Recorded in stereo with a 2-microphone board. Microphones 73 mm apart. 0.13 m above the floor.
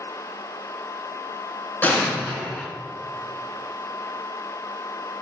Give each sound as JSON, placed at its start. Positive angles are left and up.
{"t": 1.8, "sound": "an explosion", "side_deg": 25, "distance_m": 0.7}